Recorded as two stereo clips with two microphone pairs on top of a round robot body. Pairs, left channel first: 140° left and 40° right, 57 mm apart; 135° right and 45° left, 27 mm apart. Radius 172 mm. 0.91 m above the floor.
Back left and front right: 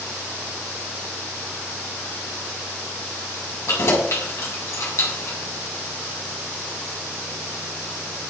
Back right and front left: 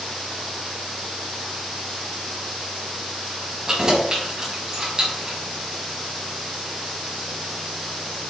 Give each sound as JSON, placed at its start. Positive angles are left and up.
{"t": 3.7, "sound": "keys jangling", "azimuth_deg": 110, "distance_m": 5.5}